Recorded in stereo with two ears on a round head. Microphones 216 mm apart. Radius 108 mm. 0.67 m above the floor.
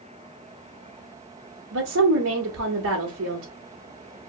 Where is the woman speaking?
60° right (ahead or behind), 1.0 m.